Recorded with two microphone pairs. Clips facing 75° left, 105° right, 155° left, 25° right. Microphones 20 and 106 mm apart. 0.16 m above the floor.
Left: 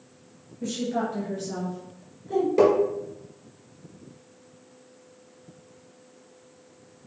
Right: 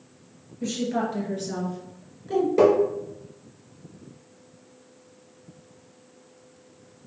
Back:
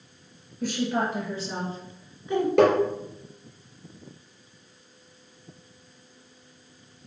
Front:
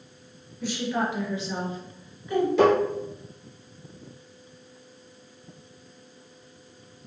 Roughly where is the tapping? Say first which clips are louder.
Right 1 dB, back 1 dB; behind.